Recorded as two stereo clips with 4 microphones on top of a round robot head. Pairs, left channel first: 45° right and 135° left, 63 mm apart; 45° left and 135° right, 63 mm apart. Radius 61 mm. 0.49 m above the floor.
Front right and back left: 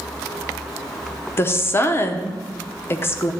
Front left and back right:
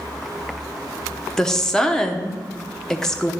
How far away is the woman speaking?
About 0.8 m.